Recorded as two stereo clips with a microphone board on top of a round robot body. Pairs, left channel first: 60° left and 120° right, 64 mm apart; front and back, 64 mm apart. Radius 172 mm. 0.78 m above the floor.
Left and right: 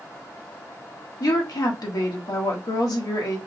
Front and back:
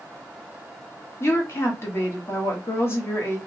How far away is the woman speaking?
About 1.1 m.